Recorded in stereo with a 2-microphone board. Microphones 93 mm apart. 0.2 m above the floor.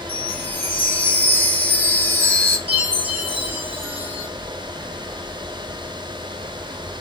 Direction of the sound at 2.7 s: 85° right.